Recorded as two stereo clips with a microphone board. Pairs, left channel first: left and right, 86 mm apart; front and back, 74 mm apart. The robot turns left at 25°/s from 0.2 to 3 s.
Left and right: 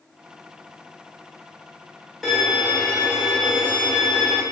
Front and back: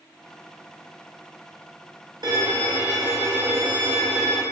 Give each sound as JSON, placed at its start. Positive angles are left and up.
{"t": 2.2, "sound": "a violin", "azimuth_deg": 175, "distance_m": 1.2}